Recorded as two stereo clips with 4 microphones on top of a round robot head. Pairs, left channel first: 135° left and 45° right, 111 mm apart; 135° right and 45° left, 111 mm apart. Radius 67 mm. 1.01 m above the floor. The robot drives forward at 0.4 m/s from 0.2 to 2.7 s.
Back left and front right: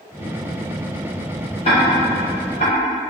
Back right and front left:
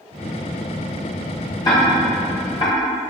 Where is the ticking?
170° left, 3 m.